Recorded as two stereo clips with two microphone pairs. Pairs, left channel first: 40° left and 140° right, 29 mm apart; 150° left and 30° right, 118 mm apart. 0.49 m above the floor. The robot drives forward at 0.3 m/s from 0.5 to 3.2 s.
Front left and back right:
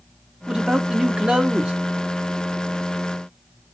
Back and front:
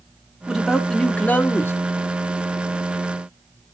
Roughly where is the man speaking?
Right.